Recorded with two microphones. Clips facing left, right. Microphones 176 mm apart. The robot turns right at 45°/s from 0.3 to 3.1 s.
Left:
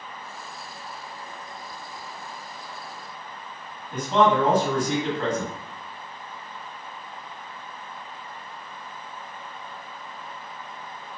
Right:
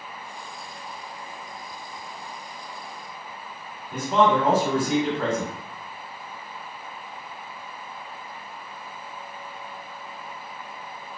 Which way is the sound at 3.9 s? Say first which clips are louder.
Even; 10° right (ahead or behind).